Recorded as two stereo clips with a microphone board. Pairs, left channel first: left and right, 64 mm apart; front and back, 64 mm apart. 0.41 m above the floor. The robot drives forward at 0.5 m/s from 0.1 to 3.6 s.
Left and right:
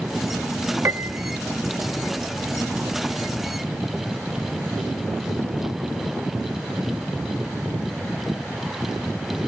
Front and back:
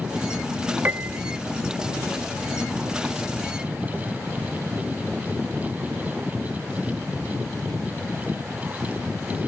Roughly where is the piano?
Behind right.